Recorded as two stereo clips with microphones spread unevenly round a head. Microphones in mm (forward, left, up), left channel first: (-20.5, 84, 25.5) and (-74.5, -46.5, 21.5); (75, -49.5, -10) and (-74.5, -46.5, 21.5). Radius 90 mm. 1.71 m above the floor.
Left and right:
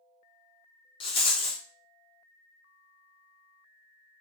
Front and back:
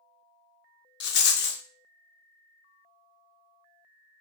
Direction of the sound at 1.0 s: 5° left.